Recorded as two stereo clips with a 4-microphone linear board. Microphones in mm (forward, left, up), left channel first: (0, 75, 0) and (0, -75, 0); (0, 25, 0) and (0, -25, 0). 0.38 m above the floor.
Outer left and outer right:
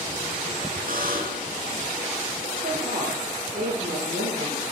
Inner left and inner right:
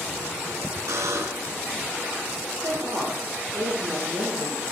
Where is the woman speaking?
80° right, 7.5 m.